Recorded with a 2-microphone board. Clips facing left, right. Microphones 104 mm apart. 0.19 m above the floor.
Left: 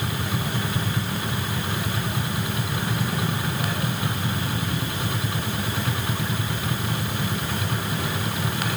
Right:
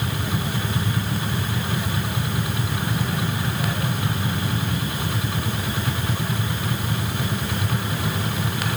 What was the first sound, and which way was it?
Only background noise.